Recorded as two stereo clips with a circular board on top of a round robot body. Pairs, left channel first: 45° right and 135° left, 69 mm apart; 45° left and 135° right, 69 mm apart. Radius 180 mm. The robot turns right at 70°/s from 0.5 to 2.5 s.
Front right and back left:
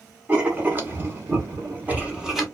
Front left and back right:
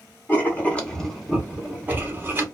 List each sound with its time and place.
0.3 s writing: 85° left, 1.2 m; by 2.5 s 140° right, 1.2 m